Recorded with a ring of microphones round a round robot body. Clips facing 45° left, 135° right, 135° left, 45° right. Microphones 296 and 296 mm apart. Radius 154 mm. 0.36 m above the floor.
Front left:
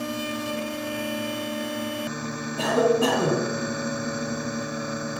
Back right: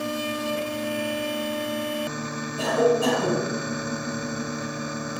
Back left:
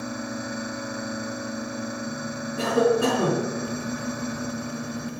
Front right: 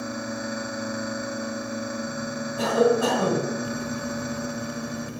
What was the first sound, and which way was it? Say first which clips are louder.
A cough: even, even; 75° left.